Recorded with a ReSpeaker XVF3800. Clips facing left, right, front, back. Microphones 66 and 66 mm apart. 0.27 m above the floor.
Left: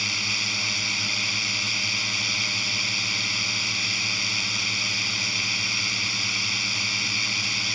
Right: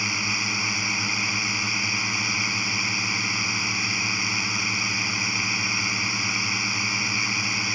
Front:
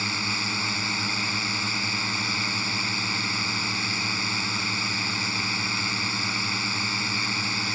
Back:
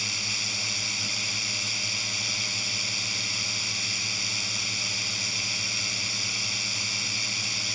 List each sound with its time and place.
0.0 s a drone: 30° right